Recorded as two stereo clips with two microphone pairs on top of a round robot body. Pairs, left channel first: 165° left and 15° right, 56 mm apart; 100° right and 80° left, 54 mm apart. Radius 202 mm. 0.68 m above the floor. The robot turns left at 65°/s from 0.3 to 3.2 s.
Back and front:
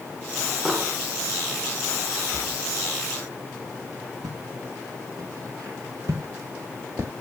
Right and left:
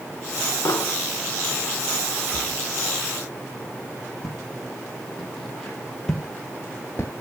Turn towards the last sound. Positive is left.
turn(degrees=-70)